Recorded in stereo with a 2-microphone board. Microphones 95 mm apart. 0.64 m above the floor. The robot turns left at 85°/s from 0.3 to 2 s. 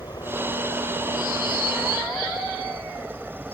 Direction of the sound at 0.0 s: 40° left (ahead or behind).